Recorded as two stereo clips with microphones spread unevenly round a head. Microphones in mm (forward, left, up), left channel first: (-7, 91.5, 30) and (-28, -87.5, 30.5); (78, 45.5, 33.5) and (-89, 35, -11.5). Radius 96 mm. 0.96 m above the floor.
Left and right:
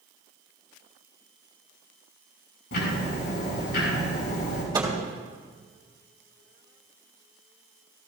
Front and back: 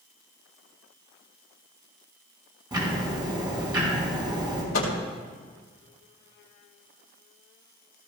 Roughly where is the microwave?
Ahead right.